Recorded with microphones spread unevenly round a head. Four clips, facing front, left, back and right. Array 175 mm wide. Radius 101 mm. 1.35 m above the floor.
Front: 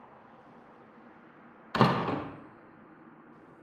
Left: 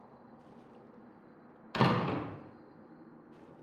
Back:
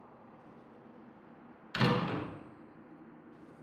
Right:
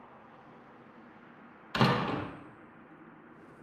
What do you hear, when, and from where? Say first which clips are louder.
1.7 s a door slam: right 1 dB, front 5 dB; straight ahead, 0.8 m